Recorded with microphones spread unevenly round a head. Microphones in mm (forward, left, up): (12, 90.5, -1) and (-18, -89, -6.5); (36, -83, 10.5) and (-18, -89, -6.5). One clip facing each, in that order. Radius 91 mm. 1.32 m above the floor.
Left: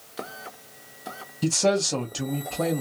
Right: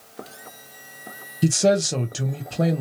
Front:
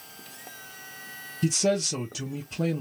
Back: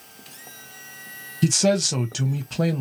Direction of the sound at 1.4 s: 170° right.